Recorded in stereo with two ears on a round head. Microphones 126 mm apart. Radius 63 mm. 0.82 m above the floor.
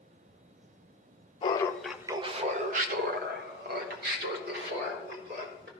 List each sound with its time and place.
1.4 s laughter: 35° left (ahead or behind), 0.6 m; by 5.7 s 75° right (ahead or behind), 3 m